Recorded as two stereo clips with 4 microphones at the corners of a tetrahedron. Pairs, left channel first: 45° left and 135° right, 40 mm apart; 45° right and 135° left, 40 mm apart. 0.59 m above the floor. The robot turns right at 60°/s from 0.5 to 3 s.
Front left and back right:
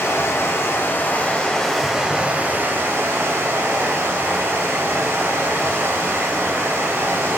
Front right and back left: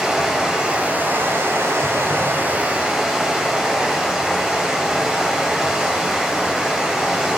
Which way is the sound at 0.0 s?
60° left.